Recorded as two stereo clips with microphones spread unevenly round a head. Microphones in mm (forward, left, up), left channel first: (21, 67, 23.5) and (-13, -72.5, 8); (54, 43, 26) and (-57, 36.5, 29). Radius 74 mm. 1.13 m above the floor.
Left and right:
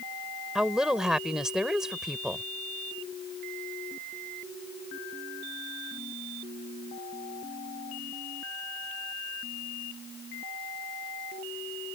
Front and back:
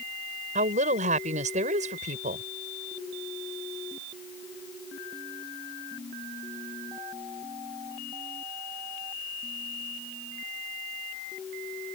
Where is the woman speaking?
170° left.